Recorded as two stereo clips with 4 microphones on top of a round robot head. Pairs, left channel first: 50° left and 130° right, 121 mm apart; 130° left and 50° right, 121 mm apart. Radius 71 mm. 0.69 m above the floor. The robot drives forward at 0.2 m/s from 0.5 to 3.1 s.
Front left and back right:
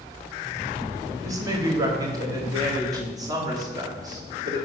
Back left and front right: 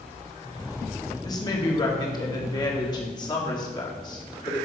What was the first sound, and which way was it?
A woman speaking, straight behind.